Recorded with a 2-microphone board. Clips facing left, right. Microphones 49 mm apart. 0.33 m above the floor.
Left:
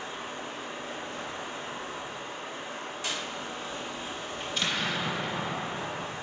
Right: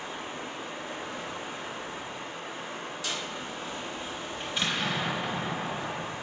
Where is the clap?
30° left (ahead or behind), 1.6 m.